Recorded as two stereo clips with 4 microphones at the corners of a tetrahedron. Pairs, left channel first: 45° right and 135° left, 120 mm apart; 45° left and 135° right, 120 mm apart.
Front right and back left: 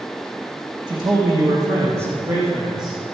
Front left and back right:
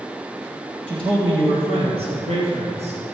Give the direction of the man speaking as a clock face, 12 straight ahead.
6 o'clock.